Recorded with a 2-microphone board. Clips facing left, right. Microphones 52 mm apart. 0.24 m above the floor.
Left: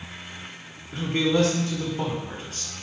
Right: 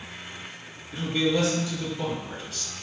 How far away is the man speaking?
About 2.5 m.